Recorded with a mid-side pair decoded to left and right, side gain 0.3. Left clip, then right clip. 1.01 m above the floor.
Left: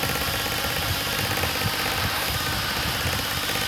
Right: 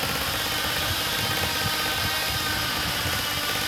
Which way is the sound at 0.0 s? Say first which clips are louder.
Left 1 dB; 35° left.